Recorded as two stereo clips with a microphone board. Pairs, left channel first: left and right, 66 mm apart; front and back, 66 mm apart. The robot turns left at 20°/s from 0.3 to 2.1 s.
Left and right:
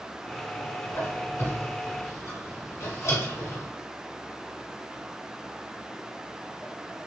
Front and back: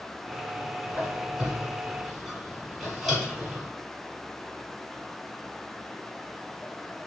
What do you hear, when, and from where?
0.9 s a squeak: 115° left, 1.4 m; by 3.7 s 90° left, 1.4 m